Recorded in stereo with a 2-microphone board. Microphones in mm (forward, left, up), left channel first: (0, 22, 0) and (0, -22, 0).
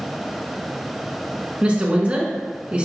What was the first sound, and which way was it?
A woman speaking, 25° right (ahead or behind).